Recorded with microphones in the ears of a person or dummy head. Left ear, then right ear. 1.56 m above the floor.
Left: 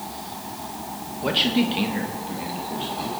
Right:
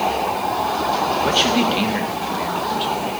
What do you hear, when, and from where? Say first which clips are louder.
1.2 s a man speaking: right 1 dB; centre (ahead or behind), 1.6 m; by 3.1 s 25° right (ahead or behind), 3 m